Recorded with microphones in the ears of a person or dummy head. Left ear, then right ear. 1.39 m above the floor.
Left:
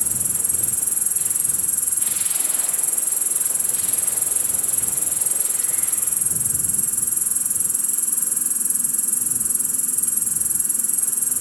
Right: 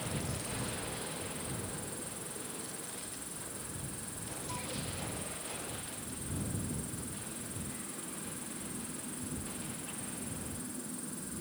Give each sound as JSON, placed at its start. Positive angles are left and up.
{"t": 0.0, "sound": "an insect", "side_deg": 75}